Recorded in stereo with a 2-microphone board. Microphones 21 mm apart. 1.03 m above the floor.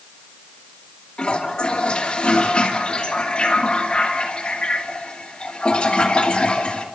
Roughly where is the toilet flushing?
Left.